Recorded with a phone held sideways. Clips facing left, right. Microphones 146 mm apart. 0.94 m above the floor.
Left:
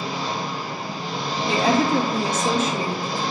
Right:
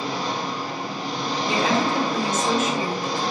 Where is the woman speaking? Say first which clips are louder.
Left 3 dB; 30° left (ahead or behind), 1.7 m.